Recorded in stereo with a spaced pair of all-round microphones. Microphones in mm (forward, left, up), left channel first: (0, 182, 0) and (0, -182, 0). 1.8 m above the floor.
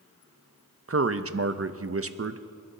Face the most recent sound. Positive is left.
turn(degrees=-40)  # may be behind; listen again after turning